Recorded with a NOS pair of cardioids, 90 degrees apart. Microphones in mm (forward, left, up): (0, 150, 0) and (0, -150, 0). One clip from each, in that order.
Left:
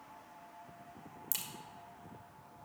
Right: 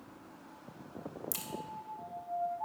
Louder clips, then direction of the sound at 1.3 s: Left 5 dB; 10° left.